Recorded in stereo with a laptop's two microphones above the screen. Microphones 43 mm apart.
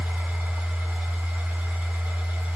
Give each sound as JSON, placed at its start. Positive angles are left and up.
{"t": 0.0, "sound": "a machine running", "side_deg": -50, "distance_m": 1.8}